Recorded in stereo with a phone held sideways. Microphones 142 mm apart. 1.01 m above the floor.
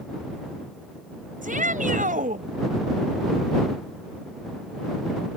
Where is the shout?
70° right (ahead or behind).